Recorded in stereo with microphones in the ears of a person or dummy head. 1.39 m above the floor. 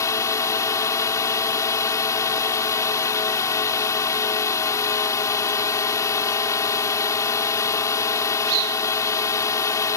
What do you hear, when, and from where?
0.0 s a drone: 20° left (ahead or behind)